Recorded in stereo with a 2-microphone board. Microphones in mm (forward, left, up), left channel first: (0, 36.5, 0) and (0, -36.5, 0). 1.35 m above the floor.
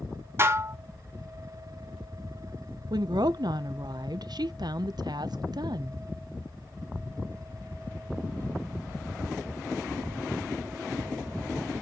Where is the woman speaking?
70° right (ahead or behind), 0.6 m.